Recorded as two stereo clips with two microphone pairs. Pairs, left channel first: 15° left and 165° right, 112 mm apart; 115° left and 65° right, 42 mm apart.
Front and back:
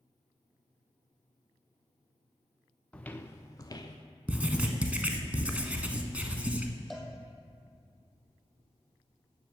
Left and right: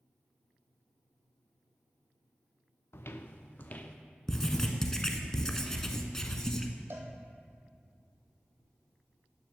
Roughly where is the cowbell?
Right.